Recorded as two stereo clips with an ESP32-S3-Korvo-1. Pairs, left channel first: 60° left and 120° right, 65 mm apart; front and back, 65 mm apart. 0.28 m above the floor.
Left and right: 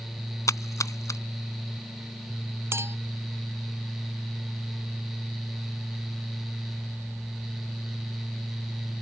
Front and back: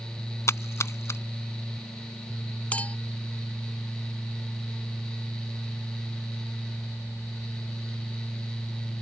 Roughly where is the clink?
Right.